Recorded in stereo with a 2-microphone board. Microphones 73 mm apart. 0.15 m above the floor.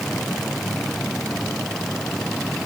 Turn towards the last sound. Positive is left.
No sound to turn to.